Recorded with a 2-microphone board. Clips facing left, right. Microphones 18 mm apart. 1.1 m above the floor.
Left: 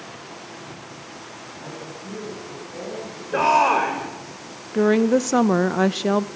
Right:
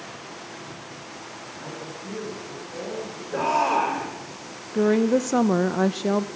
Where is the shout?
65° left (ahead or behind), 4 m.